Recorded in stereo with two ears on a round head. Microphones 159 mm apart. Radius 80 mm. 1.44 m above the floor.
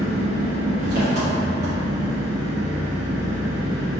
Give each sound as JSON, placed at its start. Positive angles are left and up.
{"t": 0.0, "sound": "an engine running", "side_deg": -65, "distance_m": 1.5}